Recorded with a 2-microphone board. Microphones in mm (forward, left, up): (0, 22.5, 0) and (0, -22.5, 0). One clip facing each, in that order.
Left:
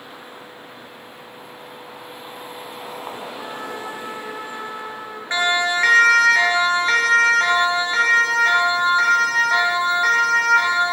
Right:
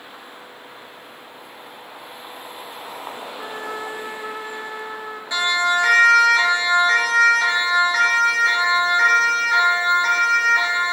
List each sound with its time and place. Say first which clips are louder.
3.4 s a trumpet: right 1 dB; 15° left (ahead or behind), 3 m
5.3 s a siren: even; 45° left (ahead or behind), 3.5 m; by 10.9 s 80° left, 9 m